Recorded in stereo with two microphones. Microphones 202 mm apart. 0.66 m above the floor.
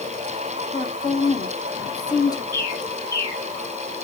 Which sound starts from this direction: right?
A bird, at 2.5 s.